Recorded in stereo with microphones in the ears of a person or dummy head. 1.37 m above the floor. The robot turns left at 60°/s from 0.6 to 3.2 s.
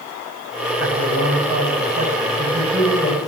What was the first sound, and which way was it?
A man speaking, 70° right.